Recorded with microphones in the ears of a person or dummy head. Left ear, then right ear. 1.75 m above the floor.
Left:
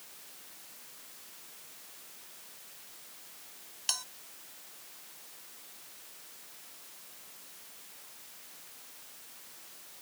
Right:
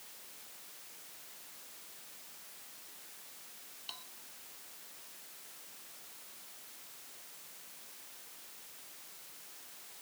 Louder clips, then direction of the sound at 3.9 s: Left 13 dB; 65° left (ahead or behind).